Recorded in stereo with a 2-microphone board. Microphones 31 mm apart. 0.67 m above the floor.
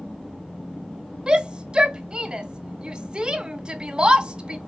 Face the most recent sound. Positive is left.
turn(degrees=-30)  # may be behind; listen again after turning